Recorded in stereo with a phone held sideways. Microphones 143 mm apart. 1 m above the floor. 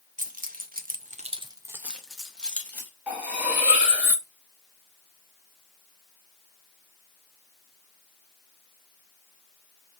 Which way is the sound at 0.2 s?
65° right (ahead or behind).